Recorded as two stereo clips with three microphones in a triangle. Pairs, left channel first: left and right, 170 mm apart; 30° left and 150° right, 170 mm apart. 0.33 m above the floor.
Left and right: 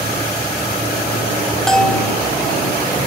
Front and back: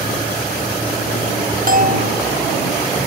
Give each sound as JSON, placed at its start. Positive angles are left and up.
{"t": 1.7, "sound": "a bell", "azimuth_deg": 175}